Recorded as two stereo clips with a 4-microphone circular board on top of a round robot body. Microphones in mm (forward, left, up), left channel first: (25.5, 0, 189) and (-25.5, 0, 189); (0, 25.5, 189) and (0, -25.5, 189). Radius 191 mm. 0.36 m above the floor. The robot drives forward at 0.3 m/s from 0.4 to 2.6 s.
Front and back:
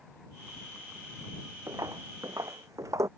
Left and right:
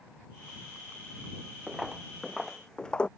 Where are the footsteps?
170° right; by 3.1 s 160° left.